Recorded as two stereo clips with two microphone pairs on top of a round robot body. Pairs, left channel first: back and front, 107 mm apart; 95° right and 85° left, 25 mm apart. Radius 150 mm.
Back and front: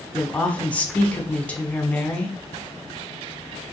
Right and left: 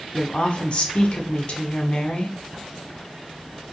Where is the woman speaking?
105° right, 0.9 m.